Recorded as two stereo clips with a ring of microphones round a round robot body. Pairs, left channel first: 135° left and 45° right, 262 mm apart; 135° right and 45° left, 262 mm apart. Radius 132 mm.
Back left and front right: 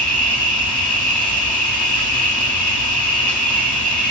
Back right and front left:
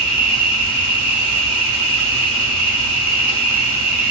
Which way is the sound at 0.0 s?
60° left.